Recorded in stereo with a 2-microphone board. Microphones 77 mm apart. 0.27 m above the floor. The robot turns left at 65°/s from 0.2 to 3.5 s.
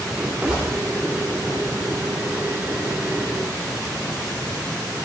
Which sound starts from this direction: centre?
A gunshot, at 0.5 s.